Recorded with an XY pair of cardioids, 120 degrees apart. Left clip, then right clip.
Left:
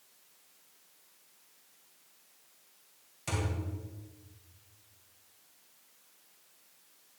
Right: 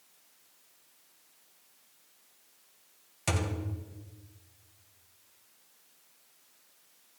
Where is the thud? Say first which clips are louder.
Right 3 dB; 50° right, 1.9 m.